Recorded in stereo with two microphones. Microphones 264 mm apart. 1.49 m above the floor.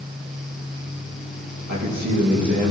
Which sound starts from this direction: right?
A man speaking, at 1.7 s.